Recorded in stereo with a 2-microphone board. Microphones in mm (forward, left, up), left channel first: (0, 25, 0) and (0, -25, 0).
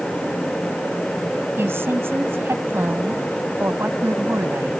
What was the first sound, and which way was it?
A woman speaking, 55° right (ahead or behind).